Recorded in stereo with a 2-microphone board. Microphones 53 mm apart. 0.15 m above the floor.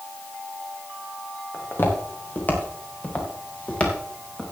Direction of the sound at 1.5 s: 40° left (ahead or behind).